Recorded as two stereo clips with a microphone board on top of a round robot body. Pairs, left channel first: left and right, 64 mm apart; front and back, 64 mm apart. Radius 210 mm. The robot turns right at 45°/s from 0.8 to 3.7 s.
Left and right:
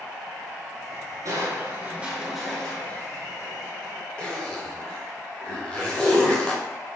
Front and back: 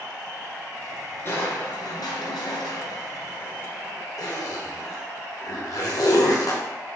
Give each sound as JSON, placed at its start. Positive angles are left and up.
{"t": 1.2, "sound": "crushing", "azimuth_deg": -55, "distance_m": 1.1}
{"t": 4.2, "sound": "a zipper", "azimuth_deg": 15, "distance_m": 2.0}